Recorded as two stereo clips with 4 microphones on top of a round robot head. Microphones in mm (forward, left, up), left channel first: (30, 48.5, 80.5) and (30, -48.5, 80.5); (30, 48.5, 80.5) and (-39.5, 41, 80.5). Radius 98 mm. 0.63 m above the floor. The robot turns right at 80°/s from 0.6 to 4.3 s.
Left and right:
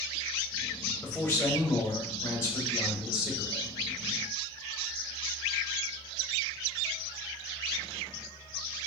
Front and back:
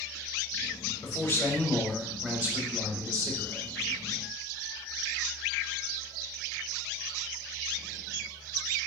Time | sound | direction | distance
1.0 | a man speaking | 15° left | 1.1 m